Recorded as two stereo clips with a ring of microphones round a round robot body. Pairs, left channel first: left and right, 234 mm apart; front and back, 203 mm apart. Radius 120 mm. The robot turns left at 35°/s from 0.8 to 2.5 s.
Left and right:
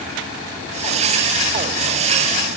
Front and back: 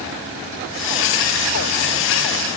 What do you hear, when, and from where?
Only background noise.